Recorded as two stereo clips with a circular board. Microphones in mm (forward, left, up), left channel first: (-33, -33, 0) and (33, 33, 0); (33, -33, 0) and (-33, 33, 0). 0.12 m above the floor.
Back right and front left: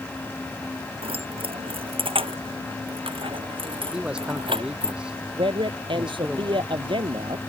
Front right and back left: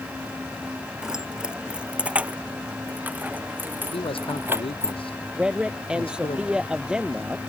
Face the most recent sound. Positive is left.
turn(degrees=55)